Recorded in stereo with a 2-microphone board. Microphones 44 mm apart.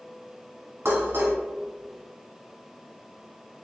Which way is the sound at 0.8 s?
60° right (ahead or behind).